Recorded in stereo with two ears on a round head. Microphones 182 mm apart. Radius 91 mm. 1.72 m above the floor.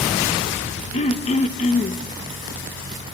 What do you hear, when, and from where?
0.9 s throat clearing: 35° left (ahead or behind), 1.1 m